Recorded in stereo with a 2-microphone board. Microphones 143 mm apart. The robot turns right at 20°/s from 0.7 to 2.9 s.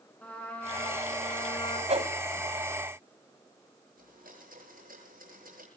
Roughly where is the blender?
Right.